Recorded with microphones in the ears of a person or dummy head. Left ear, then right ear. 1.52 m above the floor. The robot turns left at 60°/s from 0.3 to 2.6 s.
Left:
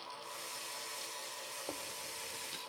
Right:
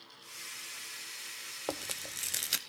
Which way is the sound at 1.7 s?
70° right (ahead or behind).